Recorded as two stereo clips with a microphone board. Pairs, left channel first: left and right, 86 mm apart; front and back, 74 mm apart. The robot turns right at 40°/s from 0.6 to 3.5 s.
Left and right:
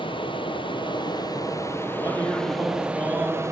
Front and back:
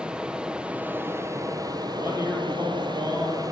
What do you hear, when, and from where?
0.0 s running water: 100° left, 0.9 m; by 3.5 s 145° right, 0.9 m
1.9 s a man speaking: 120° left, 5.5 m; by 3.4 s straight behind, 5.5 m